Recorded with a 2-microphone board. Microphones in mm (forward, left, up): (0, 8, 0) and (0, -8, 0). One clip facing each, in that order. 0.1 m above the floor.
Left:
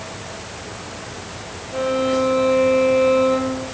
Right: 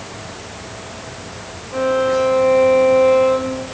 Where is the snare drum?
I don't hear a snare drum.